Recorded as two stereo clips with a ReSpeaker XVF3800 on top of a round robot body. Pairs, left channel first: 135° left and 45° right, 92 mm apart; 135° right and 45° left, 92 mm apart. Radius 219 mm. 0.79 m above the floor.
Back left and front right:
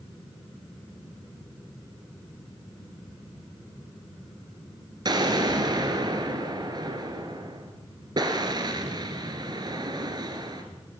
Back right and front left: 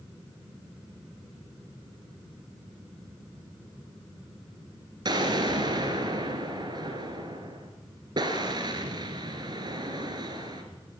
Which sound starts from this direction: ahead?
An explosion, at 5.0 s.